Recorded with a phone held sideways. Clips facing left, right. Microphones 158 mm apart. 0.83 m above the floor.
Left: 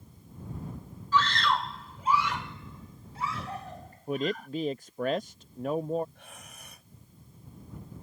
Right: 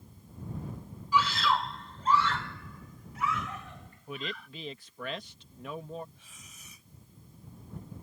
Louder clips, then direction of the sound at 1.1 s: Left 1 dB; 10° right (ahead or behind).